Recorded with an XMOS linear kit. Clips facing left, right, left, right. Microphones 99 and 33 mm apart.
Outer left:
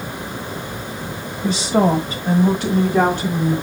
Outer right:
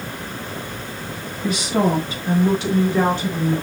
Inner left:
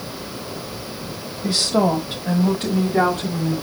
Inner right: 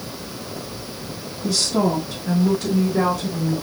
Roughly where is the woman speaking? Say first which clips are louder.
Outer left 3 dB, inner left 2 dB; left.